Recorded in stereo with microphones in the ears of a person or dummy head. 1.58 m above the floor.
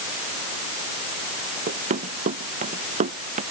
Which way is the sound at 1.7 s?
40° right (ahead or behind).